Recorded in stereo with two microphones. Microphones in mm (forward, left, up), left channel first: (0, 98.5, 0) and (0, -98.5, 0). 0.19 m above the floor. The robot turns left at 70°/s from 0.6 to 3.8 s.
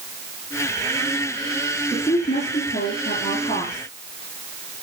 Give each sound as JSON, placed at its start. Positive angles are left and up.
{"t": 1.9, "sound": "a woman speaking", "azimuth_deg": 170, "distance_m": 3.5}